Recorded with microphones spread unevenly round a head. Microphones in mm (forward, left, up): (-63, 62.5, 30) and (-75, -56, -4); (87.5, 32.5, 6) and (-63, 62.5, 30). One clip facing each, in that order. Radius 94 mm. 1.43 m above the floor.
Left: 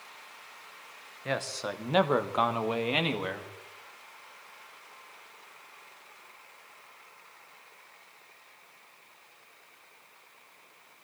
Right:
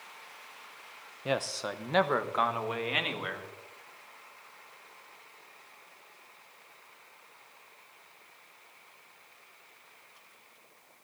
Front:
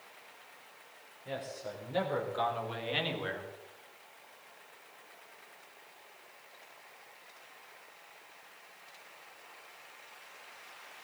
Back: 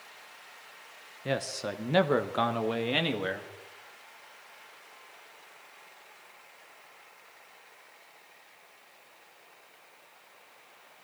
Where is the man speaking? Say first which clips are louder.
Right 1 dB, back 8 dB; 170° right, 0.9 m; by 3.5 s 135° left, 2.5 m.